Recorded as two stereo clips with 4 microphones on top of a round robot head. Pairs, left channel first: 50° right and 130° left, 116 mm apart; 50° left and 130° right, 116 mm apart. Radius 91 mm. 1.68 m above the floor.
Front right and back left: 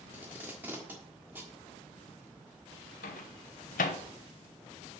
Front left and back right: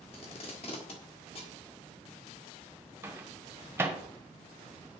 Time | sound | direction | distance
0.1 | tape being pulled | 60° left | 1.4 m
3.0 | a microwave | 55° right | 1.0 m